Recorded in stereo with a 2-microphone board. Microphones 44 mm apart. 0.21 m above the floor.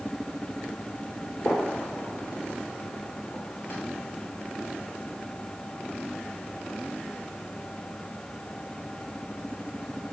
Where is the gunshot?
50° left (ahead or behind), 1.9 m.